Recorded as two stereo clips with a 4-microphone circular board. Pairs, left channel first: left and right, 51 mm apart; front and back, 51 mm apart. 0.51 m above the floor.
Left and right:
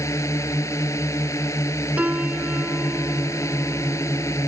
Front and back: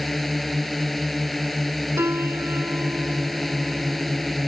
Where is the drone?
85° left.